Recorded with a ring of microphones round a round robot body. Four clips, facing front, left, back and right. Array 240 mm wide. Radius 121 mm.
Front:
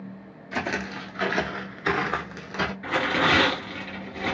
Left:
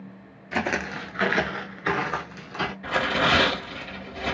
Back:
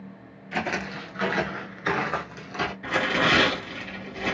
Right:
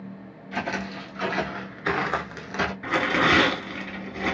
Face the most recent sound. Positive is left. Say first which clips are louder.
# right 1 dB, even
turn(degrees=-75)